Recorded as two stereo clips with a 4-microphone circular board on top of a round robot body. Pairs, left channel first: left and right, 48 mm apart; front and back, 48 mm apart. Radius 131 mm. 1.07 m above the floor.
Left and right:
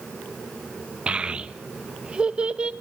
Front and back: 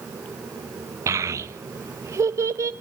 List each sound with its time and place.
1.1 s a child speaking: 160° right, 1.1 m